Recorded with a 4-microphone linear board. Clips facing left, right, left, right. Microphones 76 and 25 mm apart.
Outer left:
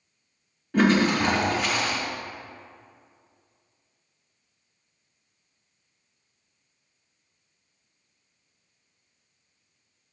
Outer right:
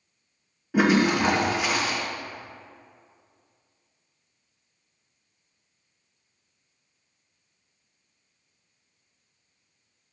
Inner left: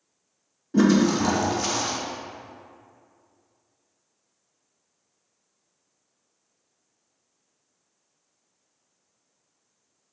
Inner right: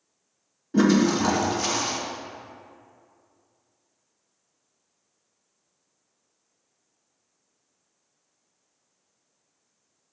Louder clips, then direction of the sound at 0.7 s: Even, inner left 1 dB; 5° right (ahead or behind).